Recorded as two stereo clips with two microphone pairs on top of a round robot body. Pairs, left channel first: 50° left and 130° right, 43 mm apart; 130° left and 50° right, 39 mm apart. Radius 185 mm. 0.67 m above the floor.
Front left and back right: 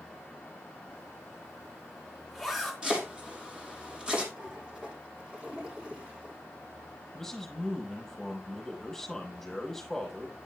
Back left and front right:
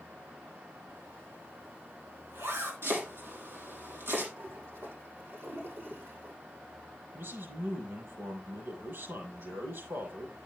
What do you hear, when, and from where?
0.9 s a zipper: 40° right, 3.5 m
2.8 s chopping: 50° right, 6.5 m
4.4 s a toilet flushing: 55° right, 9.5 m
7.1 s a man speaking: 25° right, 7.5 m